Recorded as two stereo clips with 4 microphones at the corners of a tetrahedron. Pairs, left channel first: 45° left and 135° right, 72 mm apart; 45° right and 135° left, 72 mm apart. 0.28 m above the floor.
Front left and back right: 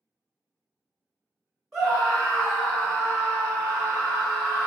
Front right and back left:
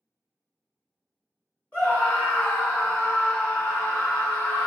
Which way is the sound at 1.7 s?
50° right.